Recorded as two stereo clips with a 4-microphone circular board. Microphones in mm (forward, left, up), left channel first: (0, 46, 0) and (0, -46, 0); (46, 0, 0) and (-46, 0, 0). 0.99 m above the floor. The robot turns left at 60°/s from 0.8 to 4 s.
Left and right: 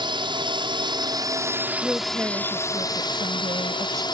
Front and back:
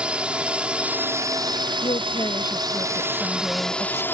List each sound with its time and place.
0.0 s a drone: 105° right; by 4.1 s 65° left
1.8 s a woman speaking: 5° right; by 4.0 s 135° right